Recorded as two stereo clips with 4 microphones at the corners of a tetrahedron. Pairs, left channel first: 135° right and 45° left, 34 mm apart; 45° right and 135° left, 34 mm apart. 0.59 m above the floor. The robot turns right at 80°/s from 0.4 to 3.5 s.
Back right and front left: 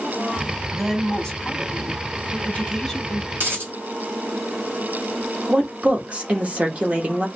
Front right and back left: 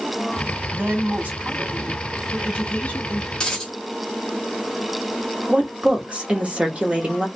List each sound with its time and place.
0.7 s a woman speaking: 125° left, 1.6 m; by 3.2 s 30° right, 1.6 m
3.4 s a dropped coin: 20° left, 1.3 m; by 3.7 s 30° left, 1.3 m
5.5 s a woman speaking: 95° left, 1.2 m